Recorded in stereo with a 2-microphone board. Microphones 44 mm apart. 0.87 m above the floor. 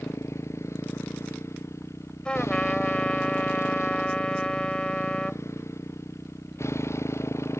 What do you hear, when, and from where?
0.0 s a motorcycle: 90° left; by 7.6 s 80° left
2.2 s a trumpet: 20° left (ahead or behind)